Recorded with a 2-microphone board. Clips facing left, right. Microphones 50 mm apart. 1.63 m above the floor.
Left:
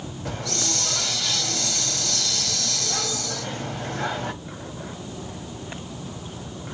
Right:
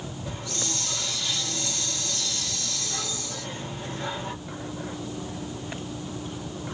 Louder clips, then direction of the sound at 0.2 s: Left 6 dB; 70° left (ahead or behind).